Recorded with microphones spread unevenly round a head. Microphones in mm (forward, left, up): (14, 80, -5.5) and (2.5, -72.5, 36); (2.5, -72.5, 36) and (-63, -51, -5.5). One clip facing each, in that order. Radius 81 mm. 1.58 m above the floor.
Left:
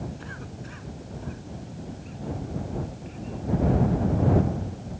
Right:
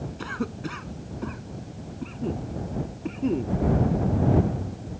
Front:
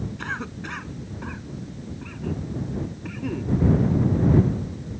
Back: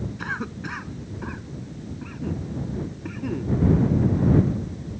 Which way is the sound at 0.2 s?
115° right.